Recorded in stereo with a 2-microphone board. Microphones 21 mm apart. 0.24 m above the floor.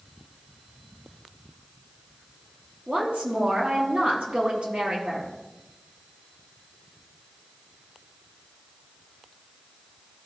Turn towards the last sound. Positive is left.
turn(degrees=-70)  # may be behind; listen again after turning